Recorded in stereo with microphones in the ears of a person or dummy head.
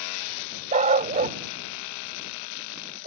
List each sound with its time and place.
0.7 s a dog barking: 40° right (ahead or behind)